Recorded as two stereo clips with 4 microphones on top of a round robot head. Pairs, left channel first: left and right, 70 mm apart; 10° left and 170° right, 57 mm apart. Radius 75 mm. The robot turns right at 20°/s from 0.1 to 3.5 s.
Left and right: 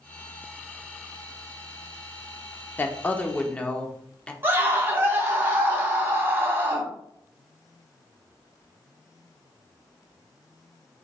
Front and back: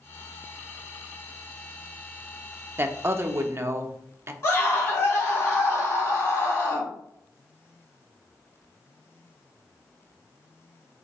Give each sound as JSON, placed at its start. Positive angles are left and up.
{"t": 2.8, "sound": "a woman speaking", "azimuth_deg": 145, "distance_m": 0.6}
{"t": 4.4, "sound": "a scream", "azimuth_deg": -35, "distance_m": 1.9}